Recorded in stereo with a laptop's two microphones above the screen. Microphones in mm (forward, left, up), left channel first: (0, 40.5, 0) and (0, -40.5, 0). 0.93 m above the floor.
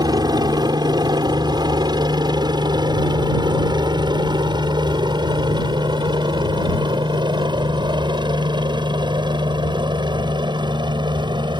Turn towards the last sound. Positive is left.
turn(degrees=-70)  # may be behind; listen again after turning